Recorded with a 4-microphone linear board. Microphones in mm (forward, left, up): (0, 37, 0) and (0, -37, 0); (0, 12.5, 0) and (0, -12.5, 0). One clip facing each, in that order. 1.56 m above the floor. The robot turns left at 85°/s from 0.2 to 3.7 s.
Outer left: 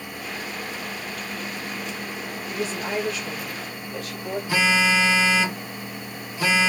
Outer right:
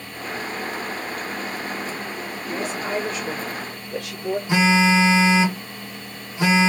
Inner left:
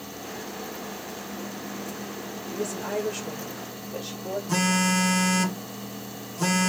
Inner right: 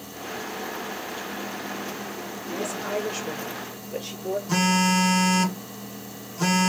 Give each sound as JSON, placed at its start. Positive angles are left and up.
{"t": 2.5, "sound": "a woman speaking", "azimuth_deg": 30, "distance_m": 1.9}
{"t": 4.5, "sound": "a phone buzzing", "side_deg": -20, "distance_m": 1.1}